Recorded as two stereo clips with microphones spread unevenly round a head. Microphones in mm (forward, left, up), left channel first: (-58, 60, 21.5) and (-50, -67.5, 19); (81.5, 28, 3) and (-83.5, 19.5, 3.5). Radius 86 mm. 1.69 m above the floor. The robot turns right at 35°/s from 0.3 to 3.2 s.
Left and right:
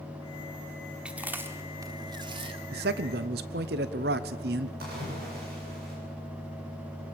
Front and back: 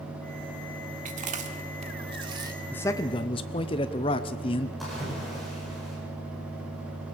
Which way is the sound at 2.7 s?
80° right.